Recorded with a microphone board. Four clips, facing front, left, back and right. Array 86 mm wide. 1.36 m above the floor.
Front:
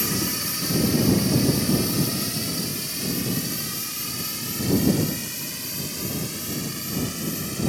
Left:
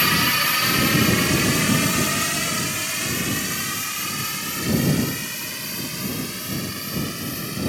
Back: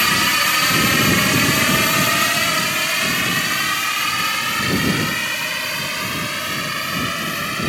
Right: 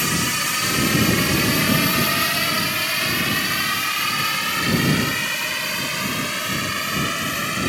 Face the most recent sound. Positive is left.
turn(degrees=-145)